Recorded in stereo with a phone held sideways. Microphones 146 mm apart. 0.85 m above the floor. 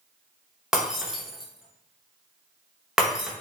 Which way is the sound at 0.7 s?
5° right (ahead or behind).